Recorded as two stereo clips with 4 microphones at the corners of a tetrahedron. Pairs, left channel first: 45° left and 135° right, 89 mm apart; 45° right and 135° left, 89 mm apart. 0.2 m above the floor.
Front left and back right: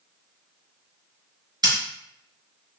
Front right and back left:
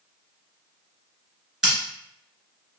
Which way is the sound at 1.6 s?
140° right.